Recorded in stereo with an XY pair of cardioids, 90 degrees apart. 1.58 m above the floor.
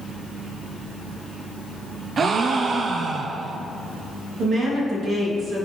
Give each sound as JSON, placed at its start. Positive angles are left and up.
{"t": 2.2, "sound": "a gasp", "azimuth_deg": -50, "distance_m": 0.5}
{"t": 4.4, "sound": "a woman speaking", "azimuth_deg": -65, "distance_m": 2.0}